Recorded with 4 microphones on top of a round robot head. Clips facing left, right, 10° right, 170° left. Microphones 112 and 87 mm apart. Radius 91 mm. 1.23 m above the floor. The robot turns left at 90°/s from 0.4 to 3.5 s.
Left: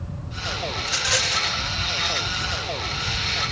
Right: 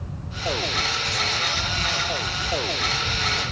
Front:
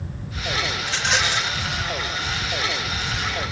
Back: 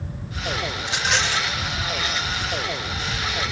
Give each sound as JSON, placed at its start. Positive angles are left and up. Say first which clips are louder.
{"t": 0.8, "sound": "a rattle", "louder": "even, back 1 dB", "azimuth_deg": 110}